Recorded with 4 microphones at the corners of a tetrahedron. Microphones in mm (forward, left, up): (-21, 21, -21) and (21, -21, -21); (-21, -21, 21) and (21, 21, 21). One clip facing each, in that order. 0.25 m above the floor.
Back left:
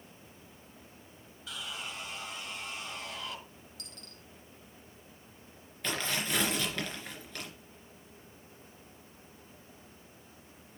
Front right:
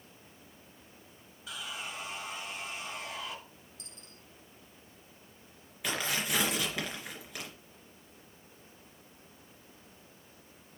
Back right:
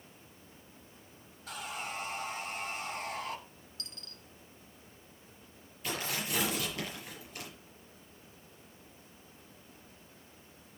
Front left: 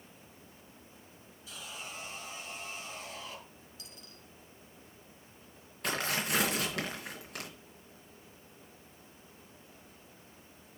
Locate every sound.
1.5 s sawing: 125° right, 2.5 m
3.8 s a dropped coin: 120° left, 1.2 m
5.8 s tearing paper: 35° left, 3 m